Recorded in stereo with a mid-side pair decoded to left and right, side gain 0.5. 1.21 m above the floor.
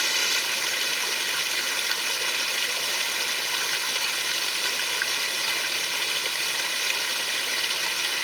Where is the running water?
5° right.